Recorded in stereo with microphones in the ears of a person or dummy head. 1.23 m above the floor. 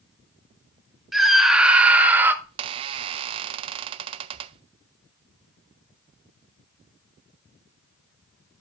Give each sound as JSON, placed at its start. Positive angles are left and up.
{"t": 1.1, "sound": "a scream", "side_deg": 0, "distance_m": 2.0}
{"t": 2.4, "sound": "a squeak", "side_deg": -30, "distance_m": 0.7}